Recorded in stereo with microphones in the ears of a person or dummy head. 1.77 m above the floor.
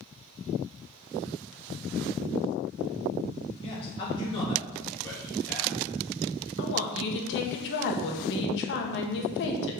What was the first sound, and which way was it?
A man speaking, 30° left (ahead or behind).